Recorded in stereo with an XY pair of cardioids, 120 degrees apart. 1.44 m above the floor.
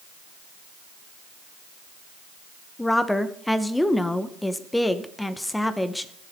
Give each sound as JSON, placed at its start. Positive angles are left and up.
{"t": 2.8, "sound": "a woman speaking", "azimuth_deg": 5, "distance_m": 1.0}